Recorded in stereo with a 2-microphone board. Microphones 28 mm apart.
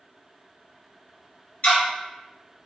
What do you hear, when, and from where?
1.6 s ticking: 55° left (ahead or behind), 1.0 m